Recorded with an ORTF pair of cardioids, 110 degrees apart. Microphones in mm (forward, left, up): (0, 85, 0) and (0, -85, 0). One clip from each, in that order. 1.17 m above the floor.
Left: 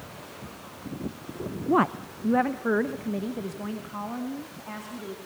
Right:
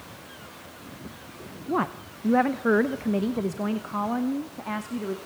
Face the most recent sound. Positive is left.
turn(degrees=-45)